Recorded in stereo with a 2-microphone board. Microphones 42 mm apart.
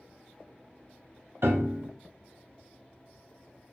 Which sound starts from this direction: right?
A piano, at 1.4 s.